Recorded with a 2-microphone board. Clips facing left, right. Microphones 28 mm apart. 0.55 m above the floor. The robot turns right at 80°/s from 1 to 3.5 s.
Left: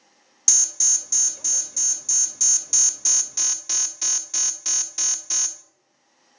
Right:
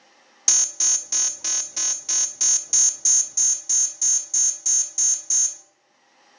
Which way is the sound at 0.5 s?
145° right.